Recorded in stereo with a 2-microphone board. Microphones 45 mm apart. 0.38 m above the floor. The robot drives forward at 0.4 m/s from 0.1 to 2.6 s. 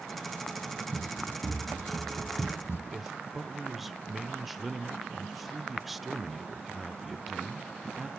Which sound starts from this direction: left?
Running footsteps, at 0.9 s.